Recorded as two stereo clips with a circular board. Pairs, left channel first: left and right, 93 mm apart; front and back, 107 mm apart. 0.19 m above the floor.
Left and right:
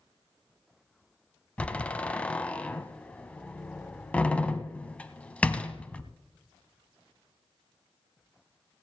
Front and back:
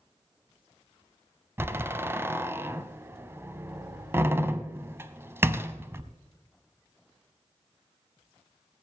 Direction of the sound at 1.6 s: 145° left.